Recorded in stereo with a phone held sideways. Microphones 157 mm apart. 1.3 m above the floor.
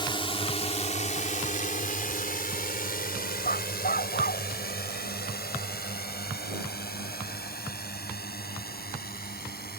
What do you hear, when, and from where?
0.0 s a drone: 30° left (ahead or behind); by 9.8 s 80° left
3.4 s a dog barking: 70° left (ahead or behind)